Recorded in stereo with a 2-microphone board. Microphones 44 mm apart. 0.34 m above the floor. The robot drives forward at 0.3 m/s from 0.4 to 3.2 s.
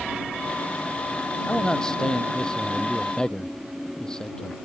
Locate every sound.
1.5 s a man speaking: 15° left (ahead or behind)